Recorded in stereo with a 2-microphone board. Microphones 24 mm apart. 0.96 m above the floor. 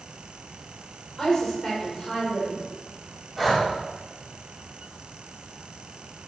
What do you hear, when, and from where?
1.2 s a woman speaking: 20° left (ahead or behind), 4.5 m
3.4 s breathing: 10° left (ahead or behind), 2.5 m